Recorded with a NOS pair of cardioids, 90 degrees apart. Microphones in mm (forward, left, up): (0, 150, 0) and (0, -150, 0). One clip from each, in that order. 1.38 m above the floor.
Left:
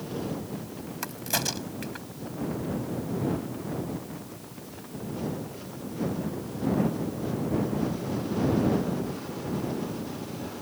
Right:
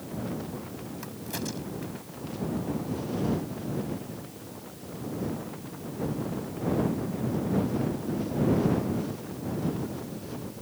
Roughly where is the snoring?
I don't hear snoring.